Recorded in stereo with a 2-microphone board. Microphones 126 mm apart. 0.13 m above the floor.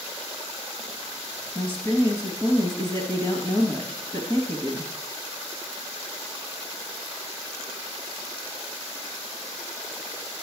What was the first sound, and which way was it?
A woman speaking, 40° left (ahead or behind).